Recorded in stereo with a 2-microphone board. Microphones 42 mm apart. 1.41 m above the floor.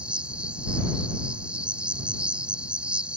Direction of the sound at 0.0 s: 25° right (ahead or behind).